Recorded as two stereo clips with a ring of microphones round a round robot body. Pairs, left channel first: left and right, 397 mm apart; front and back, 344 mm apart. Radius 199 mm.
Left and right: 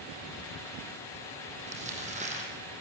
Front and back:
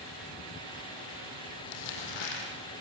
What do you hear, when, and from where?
1.6 s crumpling: 15° right, 6 m